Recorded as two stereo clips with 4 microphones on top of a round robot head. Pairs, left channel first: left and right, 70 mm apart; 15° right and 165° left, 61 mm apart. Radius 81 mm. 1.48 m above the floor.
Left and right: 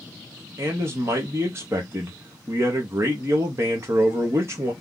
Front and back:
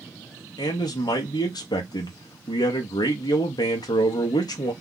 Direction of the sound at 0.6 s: 35° right.